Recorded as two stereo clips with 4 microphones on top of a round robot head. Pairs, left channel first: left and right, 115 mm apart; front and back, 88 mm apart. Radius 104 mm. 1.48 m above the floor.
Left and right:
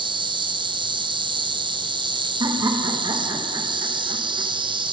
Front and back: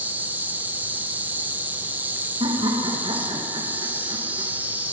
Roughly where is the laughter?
Behind right.